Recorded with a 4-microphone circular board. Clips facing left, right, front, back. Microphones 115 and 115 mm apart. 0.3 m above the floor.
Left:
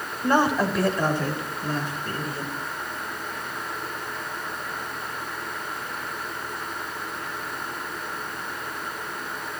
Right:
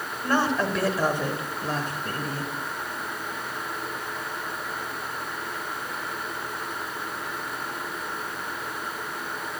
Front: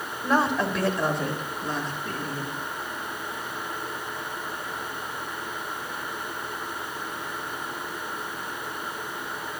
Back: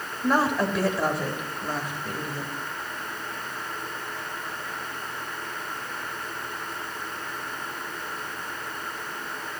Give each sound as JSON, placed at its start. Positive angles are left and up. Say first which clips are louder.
{"t": 0.2, "sound": "a woman speaking", "louder": "left 3 dB, back 1 dB", "azimuth_deg": 95, "distance_m": 1.2}